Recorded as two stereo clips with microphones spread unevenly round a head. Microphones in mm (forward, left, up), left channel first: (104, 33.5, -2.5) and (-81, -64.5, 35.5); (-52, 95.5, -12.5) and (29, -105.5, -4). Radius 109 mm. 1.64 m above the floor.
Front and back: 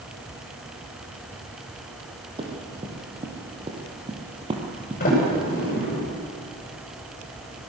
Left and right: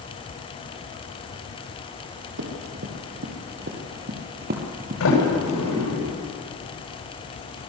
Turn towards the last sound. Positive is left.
turn(degrees=85)